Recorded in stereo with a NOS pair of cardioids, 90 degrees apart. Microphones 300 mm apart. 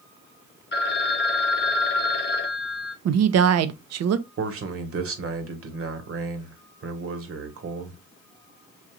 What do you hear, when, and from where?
0.7 s a phone ringing: 35° left, 0.9 m
3.0 s a woman speaking: 60° right, 0.7 m
4.4 s a man speaking: 50° right, 1.5 m